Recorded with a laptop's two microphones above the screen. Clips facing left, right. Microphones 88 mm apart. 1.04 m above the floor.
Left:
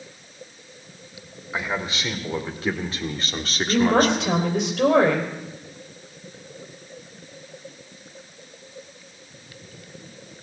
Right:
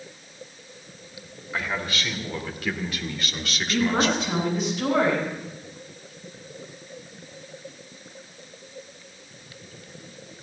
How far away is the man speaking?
About 3 m.